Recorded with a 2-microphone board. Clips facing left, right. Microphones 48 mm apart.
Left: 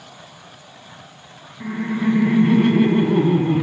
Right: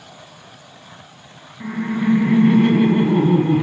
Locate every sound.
1.6 s laughter: 5° right (ahead or behind), 1.1 m